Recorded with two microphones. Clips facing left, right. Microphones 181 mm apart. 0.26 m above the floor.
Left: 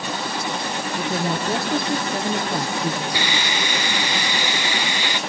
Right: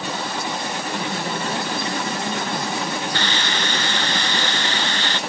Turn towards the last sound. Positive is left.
turn(degrees=10)  # may be behind; listen again after turning